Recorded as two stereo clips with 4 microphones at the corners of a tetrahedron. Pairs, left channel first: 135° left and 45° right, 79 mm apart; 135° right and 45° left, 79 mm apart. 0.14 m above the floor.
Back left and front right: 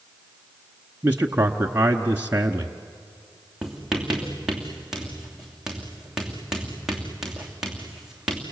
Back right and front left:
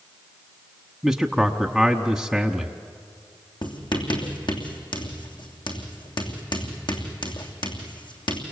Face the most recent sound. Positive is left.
turn(degrees=-125)